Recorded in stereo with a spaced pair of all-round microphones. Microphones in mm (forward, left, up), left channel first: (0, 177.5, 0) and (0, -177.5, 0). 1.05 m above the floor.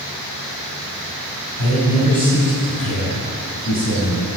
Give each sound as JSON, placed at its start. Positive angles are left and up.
{"t": 1.6, "sound": "a man speaking", "side_deg": 65, "distance_m": 5.5}